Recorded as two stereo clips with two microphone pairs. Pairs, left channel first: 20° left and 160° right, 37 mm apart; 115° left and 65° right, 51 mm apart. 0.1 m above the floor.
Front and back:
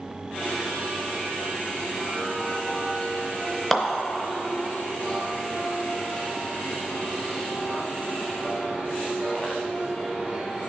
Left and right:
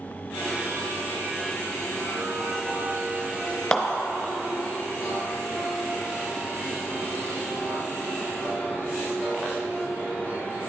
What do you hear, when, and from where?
3.7 s a clap: 95° left, 0.9 m